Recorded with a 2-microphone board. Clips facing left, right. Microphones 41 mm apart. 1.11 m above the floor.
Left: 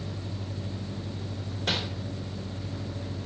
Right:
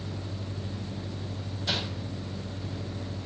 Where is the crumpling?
70° left (ahead or behind), 3.5 m.